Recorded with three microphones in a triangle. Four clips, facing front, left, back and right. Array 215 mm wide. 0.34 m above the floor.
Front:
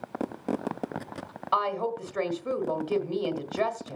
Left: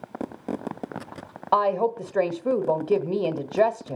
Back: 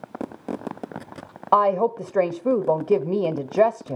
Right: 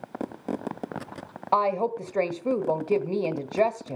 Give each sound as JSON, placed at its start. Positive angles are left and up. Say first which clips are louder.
{"t": 1.5, "sound": "a woman speaking", "louder": "left 2 dB, back 9 dB", "azimuth_deg": 170, "distance_m": 1.3}